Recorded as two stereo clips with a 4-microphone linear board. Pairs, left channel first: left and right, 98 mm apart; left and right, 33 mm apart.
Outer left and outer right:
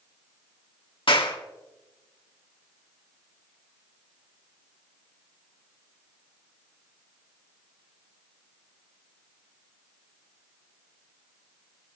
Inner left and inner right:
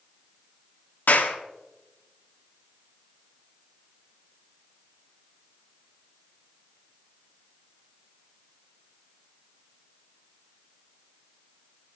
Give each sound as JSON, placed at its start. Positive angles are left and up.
{"t": 1.1, "sound": "a clap", "side_deg": 65, "distance_m": 1.7}